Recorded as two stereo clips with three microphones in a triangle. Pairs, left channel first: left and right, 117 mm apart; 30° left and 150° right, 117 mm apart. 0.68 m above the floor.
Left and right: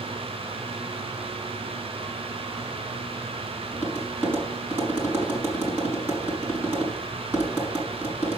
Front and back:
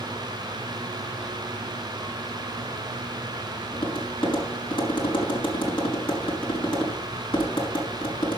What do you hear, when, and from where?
3.7 s tapping: 15° right, 5 m